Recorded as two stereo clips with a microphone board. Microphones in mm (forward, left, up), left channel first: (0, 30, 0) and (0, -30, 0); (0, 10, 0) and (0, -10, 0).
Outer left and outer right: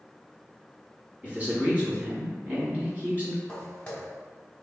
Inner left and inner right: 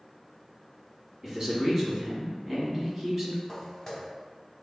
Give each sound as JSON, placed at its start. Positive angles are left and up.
{"t": 1.2, "sound": "a man speaking", "side_deg": -25, "distance_m": 1.6}
{"t": 3.5, "sound": "footsteps", "side_deg": 15, "distance_m": 1.6}